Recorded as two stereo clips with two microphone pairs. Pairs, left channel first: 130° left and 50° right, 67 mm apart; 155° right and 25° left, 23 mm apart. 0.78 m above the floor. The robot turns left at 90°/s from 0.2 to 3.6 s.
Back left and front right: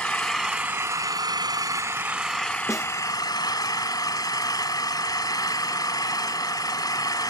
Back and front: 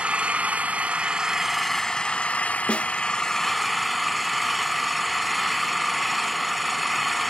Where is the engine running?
50° left, 2 m; by 7.3 s 105° left, 2 m.